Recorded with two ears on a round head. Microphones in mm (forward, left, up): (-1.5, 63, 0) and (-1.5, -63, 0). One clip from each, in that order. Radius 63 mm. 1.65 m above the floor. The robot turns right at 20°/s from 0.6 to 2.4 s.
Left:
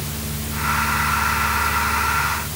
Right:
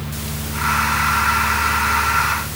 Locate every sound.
Only background noise.